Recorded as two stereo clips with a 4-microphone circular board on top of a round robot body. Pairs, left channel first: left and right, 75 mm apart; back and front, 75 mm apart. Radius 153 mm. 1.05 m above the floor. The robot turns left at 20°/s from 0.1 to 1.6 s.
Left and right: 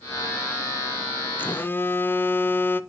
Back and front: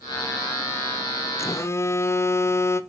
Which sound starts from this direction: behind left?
A phone buzzing, at 1.4 s.